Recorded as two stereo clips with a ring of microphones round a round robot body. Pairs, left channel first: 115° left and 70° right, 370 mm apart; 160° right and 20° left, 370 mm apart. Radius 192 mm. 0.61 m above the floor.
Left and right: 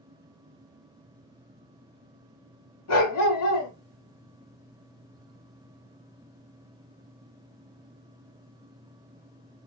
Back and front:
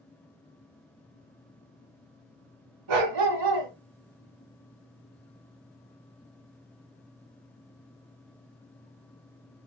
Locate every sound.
2.9 s a dog barking: 60° left, 1.3 m